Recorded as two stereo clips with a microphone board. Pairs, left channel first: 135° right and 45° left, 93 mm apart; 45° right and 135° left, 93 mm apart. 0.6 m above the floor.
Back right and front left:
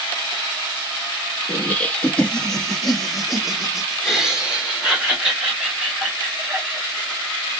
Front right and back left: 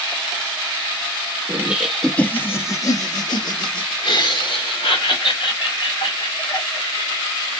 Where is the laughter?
175° left, 0.7 m; by 7.5 s 35° right, 3 m.